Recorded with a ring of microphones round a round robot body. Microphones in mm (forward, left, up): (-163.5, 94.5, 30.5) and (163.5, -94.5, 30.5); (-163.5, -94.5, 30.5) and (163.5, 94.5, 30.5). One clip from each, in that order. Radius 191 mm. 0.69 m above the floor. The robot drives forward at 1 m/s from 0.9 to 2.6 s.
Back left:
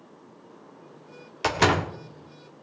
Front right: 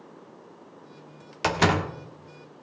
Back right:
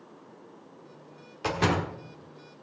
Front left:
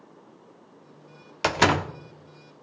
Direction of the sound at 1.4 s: 55° left.